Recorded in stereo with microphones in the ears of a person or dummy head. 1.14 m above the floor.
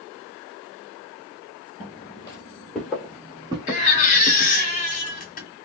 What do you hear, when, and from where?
1.8 s footsteps: 30° left (ahead or behind), 1.3 m; by 4.5 s 45° right (ahead or behind), 1.5 m
3.7 s a baby crying: 40° left (ahead or behind), 0.9 m